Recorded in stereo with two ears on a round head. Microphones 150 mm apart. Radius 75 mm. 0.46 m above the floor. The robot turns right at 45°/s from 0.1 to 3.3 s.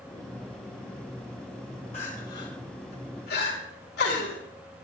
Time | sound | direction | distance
1.9 | crying | 40° left (ahead or behind) | 5 m